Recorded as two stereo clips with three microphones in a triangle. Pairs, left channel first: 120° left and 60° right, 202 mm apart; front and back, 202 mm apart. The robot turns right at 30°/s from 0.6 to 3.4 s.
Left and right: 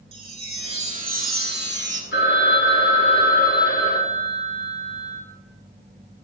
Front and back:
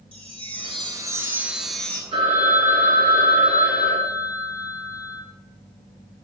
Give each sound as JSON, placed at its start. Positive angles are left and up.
{"t": 0.1, "sound": "a chime", "azimuth_deg": -125, "distance_m": 0.6}
{"t": 2.1, "sound": "a phone ringing", "azimuth_deg": 115, "distance_m": 1.6}